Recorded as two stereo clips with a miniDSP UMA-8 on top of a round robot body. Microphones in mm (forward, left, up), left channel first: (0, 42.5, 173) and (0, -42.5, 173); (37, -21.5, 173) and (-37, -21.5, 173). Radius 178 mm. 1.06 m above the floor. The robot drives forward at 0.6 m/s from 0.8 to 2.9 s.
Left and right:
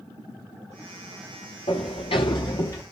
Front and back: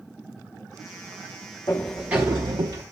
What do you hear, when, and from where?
1.7 s a sliding door: 65° left, 0.6 m; by 2.8 s 145° left, 0.8 m